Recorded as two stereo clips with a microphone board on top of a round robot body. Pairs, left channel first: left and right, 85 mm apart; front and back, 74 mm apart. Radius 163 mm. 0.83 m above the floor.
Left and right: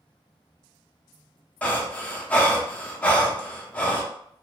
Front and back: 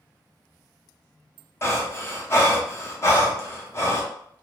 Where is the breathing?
25° left, 1.0 m.